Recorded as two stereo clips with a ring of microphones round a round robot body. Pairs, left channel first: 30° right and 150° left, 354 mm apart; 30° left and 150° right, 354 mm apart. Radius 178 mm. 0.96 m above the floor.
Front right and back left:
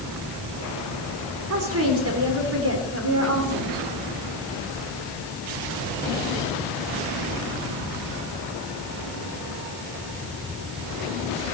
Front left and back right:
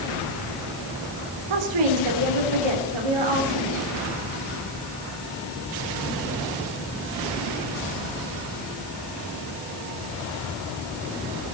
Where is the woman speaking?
155° right, 3.5 m.